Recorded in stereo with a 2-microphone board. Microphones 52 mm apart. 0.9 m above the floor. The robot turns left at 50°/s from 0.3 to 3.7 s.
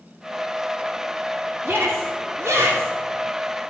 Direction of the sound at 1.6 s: 55° right (ahead or behind).